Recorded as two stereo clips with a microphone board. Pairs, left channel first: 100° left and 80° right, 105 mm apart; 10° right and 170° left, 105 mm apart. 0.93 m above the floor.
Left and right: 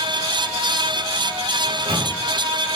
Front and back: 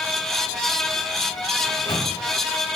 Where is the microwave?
60° right, 3 m.